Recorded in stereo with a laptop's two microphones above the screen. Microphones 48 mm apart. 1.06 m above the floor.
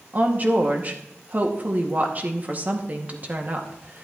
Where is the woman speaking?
35° right (ahead or behind), 1.8 m.